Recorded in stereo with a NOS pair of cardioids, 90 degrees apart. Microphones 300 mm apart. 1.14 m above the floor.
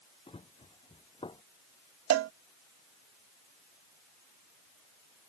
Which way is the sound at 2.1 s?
55° right.